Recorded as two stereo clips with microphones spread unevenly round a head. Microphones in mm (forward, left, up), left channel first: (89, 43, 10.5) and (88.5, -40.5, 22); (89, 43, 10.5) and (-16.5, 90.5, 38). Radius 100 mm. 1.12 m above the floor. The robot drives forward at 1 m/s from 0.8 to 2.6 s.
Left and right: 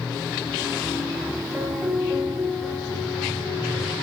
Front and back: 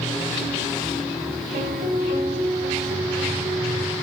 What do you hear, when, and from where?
1.5 s a piano: 170° right, 1.2 m; by 4.0 s 175° right, 2.5 m